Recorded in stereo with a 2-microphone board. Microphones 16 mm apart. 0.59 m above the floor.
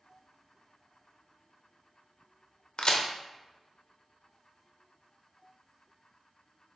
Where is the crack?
65° left (ahead or behind), 0.6 m.